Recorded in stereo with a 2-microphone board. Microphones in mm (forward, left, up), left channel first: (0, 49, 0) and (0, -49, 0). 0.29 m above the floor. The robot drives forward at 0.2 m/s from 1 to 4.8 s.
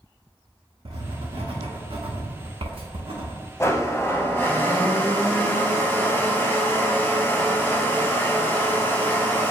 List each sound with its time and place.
0.8 s writing: 70° right (ahead or behind), 1.0 m; by 3.3 s 75° right (ahead or behind), 0.9 m
3.6 s a blender: 30° left (ahead or behind), 0.6 m; by 9.5 s 20° left (ahead or behind), 0.8 m